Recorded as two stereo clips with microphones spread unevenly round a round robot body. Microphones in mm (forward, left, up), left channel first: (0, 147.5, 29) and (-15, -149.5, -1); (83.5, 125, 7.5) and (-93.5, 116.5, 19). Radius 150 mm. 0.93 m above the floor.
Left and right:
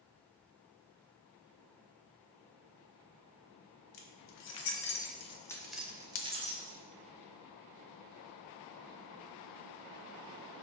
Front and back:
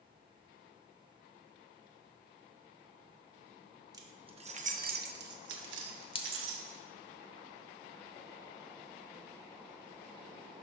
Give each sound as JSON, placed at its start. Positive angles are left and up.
{"t": 3.9, "sound": "keys jangling", "azimuth_deg": 110, "distance_m": 1.3}
{"t": 6.2, "sound": "a dropped coin", "azimuth_deg": 60, "distance_m": 0.9}